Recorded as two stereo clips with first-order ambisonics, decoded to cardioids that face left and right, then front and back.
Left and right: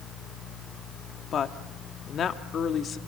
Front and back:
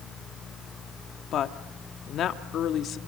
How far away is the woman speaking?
About 1.0 m.